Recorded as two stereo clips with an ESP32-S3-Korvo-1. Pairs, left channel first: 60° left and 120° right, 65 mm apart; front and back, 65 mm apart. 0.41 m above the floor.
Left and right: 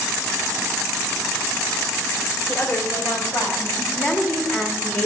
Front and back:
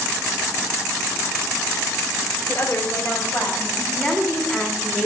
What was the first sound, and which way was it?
A woman speaking, 25° left.